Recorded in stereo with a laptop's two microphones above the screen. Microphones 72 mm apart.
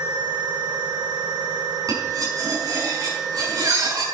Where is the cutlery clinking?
55° right (ahead or behind), 6 m.